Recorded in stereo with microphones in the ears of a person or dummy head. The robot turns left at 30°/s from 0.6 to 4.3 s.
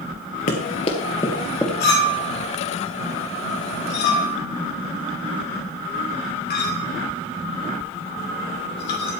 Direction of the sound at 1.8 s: 50° left (ahead or behind).